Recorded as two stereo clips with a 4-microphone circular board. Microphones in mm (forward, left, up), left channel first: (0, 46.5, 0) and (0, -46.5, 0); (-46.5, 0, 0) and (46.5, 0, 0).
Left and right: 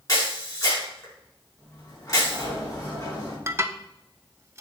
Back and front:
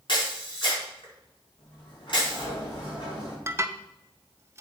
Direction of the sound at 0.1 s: 140° left.